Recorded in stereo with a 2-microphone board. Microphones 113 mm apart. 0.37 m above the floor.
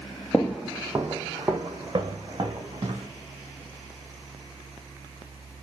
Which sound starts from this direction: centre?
Footsteps, at 0.3 s.